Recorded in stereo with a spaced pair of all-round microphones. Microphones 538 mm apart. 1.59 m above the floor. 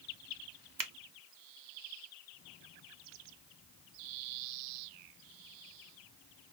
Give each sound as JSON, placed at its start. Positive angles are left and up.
{"t": 0.8, "sound": "a finger snap", "side_deg": -40, "distance_m": 0.6}